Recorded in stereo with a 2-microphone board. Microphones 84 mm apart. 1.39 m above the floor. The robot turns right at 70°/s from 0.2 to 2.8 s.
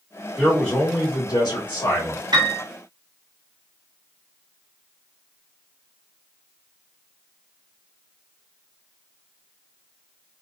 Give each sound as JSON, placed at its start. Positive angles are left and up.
{"t": 0.4, "sound": "a man speaking", "azimuth_deg": -5, "distance_m": 1.2}
{"t": 2.3, "sound": "a piano", "side_deg": -65, "distance_m": 0.7}